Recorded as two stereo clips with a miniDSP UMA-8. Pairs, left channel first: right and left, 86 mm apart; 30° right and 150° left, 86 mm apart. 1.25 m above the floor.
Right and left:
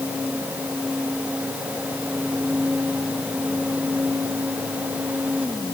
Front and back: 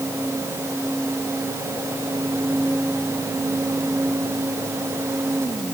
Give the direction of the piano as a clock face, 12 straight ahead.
I don't hear a piano.